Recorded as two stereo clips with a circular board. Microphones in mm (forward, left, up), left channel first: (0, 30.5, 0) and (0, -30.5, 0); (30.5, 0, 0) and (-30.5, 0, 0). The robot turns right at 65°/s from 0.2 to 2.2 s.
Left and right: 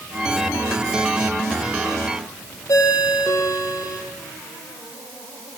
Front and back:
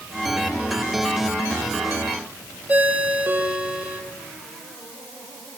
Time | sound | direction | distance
2.7 | a ringtone | 115° left | 4 m